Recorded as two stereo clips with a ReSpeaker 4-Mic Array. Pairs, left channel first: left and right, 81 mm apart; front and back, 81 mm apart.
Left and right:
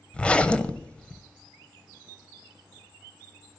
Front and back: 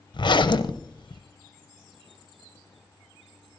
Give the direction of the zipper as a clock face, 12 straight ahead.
12 o'clock.